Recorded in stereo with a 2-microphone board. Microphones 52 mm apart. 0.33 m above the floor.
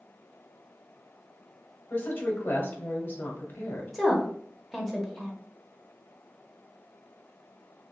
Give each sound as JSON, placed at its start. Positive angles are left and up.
{"t": 1.9, "sound": "a woman speaking", "side_deg": 40, "distance_m": 1.3}
{"t": 3.9, "sound": "a woman speaking", "side_deg": 0, "distance_m": 0.9}